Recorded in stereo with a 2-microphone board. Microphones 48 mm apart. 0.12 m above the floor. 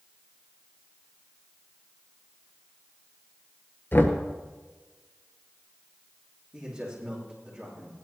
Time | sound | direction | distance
3.9 | knocking | 45° left (ahead or behind) | 1.3 m
6.5 | a man speaking | 15° right (ahead or behind) | 7 m